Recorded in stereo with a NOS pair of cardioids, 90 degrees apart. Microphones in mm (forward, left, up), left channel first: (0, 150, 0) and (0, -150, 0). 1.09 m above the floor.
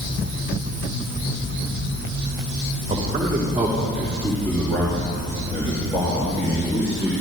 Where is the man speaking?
20° right, 2.5 m; by 7.1 s 25° left, 5 m.